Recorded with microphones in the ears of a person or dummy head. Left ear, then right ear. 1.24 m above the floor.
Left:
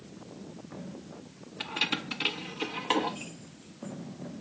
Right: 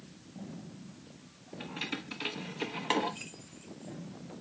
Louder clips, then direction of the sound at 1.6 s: Left 8 dB; 35° left (ahead or behind).